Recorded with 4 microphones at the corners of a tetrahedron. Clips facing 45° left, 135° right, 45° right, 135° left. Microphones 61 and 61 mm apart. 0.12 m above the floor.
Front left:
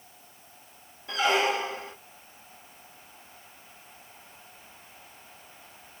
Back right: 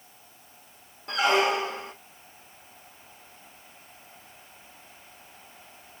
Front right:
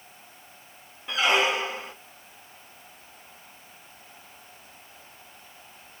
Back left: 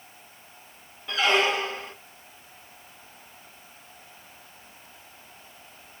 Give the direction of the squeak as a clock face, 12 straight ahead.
4 o'clock.